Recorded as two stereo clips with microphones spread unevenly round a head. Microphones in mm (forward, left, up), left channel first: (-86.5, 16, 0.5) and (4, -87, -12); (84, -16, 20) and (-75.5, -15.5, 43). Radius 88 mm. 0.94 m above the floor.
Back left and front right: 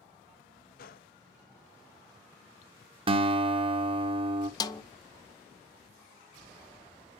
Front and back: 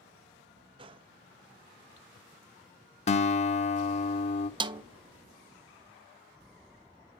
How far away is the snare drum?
About 0.6 m.